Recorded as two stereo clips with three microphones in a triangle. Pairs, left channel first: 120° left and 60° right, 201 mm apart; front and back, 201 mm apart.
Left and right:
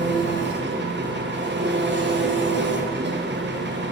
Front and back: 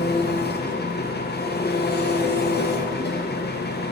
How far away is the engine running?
About 0.8 m.